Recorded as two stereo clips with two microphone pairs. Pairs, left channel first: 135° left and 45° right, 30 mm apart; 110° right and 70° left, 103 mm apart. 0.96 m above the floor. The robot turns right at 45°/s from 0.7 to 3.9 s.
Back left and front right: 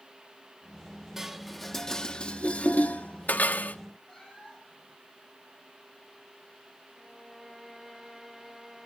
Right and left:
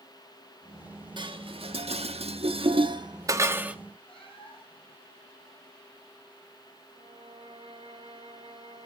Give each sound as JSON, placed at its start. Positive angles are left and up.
{"t": 1.2, "sound": "dishes clattering", "azimuth_deg": 35, "distance_m": 0.9}
{"t": 4.1, "sound": "a cat meowing", "azimuth_deg": -140, "distance_m": 7.0}
{"t": 6.9, "sound": "a violin", "azimuth_deg": 40, "distance_m": 4.5}